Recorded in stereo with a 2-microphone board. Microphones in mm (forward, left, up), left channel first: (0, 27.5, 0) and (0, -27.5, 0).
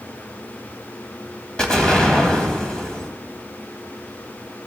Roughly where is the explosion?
Centre.